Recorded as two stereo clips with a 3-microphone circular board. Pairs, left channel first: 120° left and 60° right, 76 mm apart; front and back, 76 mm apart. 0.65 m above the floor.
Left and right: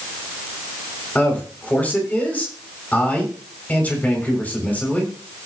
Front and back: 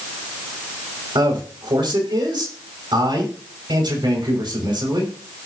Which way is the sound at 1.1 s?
170° right.